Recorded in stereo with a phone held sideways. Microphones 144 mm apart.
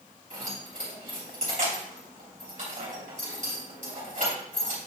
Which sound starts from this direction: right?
Keys jangling, at 0.3 s.